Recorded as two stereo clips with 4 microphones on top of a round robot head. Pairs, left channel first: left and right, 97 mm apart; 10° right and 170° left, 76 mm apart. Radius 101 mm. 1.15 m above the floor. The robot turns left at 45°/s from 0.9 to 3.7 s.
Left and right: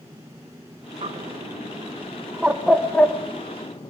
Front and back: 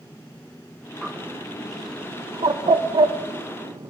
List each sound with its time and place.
1.0 s a bird: 105° right, 1.8 m; by 3.9 s 135° left, 1.8 m